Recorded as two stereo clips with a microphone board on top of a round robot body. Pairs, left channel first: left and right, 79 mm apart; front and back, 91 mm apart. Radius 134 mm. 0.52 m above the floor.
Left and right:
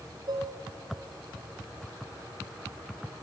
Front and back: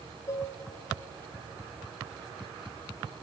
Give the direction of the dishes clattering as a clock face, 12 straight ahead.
2 o'clock.